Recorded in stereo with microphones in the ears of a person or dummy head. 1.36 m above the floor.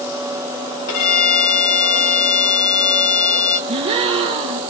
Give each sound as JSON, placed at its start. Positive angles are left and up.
{"t": 0.9, "sound": "a violin", "side_deg": 75, "distance_m": 2.5}
{"t": 3.7, "sound": "a gasp", "side_deg": -25, "distance_m": 0.7}